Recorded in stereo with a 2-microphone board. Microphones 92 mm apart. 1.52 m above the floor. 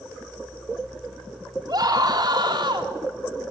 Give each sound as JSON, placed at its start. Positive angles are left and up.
{"t": 1.7, "sound": "a scream", "side_deg": -45, "distance_m": 3.5}